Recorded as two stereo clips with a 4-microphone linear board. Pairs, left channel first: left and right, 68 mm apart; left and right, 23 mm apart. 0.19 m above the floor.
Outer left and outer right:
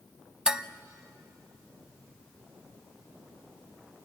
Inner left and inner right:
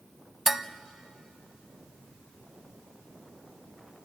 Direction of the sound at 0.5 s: 10° right (ahead or behind).